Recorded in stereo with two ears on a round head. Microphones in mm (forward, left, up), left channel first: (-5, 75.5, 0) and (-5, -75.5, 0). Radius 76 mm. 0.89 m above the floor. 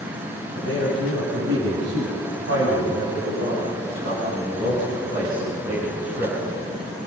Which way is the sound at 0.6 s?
80° right.